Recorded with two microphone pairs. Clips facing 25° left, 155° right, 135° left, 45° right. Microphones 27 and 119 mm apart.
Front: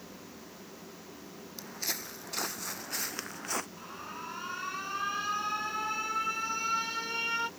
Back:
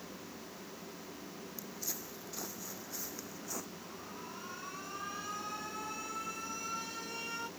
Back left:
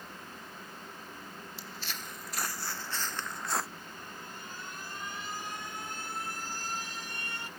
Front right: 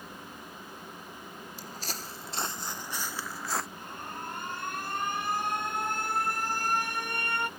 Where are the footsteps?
Straight ahead; by 3.7 s 50° left.